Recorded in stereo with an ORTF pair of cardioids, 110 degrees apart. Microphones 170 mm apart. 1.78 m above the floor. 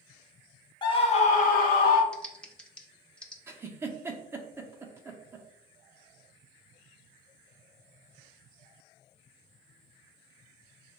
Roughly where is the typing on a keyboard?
Ahead.